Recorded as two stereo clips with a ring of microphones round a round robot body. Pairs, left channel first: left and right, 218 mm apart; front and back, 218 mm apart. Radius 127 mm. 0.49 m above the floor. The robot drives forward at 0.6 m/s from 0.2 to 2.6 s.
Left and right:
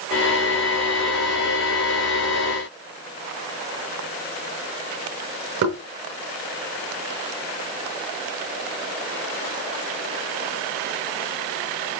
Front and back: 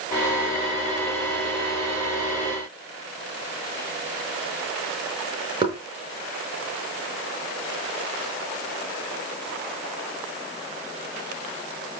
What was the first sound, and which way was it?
Knocking, 110° right.